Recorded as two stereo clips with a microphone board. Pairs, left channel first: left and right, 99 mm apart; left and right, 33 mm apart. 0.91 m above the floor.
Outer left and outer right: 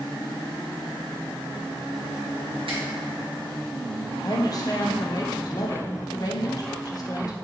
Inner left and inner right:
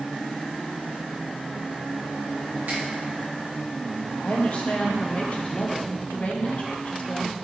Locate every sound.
2.7 s a finger snap: 70° right (ahead or behind), 1.1 m
4.2 s a woman speaking: 40° left (ahead or behind), 0.6 m